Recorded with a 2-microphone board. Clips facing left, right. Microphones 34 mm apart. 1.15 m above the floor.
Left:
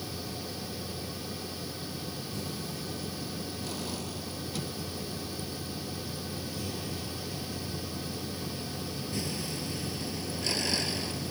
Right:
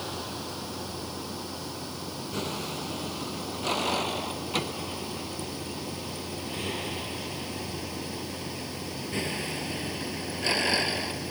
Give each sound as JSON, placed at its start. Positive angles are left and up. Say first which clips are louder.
{"t": 0.0, "sound": "a vehicle", "louder": "right 3 dB", "side_deg": -70}